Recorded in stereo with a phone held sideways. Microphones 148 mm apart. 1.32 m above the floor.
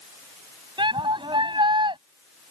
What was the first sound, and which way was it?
A shout, 30° right (ahead or behind).